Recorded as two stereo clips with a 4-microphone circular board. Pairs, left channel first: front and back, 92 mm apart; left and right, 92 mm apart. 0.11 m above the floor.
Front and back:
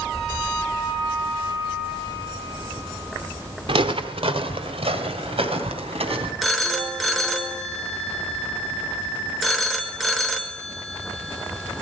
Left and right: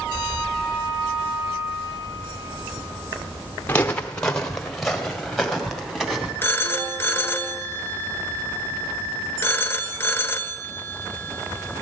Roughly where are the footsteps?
Behind.